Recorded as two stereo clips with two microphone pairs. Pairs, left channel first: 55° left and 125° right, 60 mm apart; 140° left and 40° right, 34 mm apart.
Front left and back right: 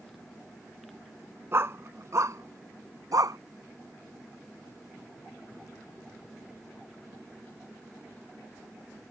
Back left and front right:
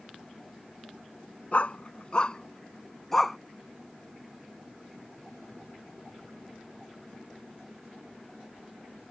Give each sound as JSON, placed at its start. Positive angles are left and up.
{"t": 1.5, "sound": "a dog barking", "azimuth_deg": -170}